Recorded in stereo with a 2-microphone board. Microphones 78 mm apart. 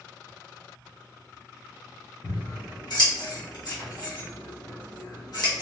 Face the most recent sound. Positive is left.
turn(degrees=65)  # may be behind; listen again after turning